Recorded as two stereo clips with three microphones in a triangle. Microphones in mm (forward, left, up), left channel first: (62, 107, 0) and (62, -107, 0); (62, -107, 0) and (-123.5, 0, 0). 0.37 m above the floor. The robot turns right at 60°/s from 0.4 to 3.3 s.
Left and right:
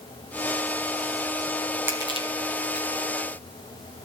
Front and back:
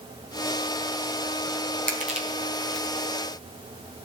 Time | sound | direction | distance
1.9 | crushing | 170° right | 3.5 m